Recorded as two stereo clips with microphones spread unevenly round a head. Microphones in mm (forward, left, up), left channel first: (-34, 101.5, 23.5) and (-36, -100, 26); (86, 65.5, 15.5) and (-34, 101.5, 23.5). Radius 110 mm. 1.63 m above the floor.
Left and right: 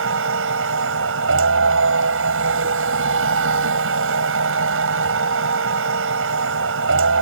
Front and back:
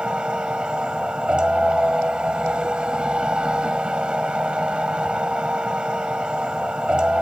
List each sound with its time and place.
0.0 s a machine running: 110° right